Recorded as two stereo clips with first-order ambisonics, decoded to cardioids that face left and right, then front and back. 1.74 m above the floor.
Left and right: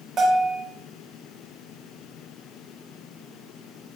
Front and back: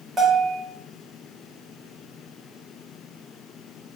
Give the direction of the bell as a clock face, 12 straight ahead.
4 o'clock.